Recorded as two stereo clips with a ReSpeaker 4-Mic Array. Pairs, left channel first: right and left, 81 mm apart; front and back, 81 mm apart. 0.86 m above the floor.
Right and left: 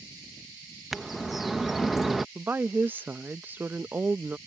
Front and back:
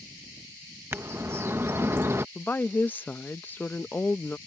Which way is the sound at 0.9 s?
175° left.